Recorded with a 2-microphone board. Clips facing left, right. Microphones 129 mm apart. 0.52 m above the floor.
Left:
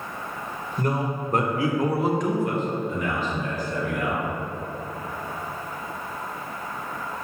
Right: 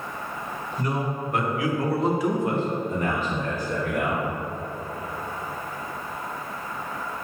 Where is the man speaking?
50° left (ahead or behind), 1.8 m; by 4.2 s 60° right (ahead or behind), 2.5 m.